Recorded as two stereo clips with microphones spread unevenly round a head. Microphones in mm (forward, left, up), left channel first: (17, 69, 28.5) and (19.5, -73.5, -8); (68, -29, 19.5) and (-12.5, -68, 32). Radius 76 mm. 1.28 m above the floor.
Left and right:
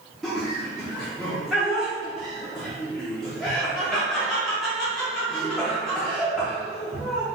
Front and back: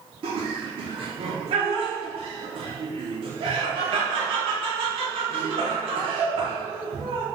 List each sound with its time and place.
0.2 s laughter: 170° right, 0.7 m